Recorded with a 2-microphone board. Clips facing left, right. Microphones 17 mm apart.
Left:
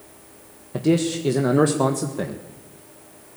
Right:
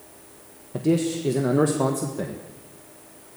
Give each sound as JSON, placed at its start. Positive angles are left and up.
{"t": 0.7, "sound": "a man speaking", "side_deg": 30, "distance_m": 1.6}